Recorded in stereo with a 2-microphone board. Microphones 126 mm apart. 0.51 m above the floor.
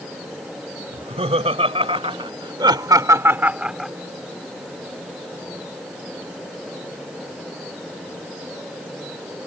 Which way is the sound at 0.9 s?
60° right (ahead or behind).